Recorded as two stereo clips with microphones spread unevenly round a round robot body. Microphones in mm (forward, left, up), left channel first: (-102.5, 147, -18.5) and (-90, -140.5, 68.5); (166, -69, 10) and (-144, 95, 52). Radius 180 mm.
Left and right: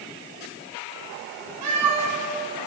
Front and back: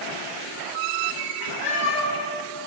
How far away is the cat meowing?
About 4.5 m.